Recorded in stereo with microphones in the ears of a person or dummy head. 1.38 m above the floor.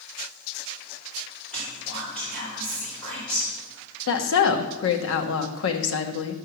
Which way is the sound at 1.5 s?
10° left (ahead or behind).